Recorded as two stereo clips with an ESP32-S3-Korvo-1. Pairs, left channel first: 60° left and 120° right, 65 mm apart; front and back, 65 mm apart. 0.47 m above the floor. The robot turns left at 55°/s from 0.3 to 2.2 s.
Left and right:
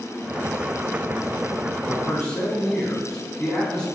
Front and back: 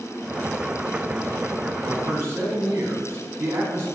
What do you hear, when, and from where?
1.8 s a man speaking: 155° left, 4 m; by 3.9 s 135° left, 4 m